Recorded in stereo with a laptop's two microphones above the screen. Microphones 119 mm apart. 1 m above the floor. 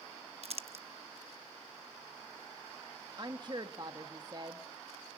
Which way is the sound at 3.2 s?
40° right (ahead or behind).